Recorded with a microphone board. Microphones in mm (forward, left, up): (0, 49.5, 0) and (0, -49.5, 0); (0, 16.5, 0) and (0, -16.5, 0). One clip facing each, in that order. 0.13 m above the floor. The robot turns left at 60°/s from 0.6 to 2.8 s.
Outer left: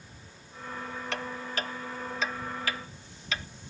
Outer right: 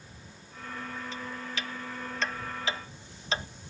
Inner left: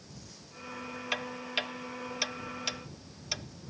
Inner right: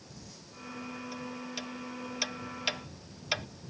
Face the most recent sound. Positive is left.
turn(degrees=-30)  # may be behind; listen again after turning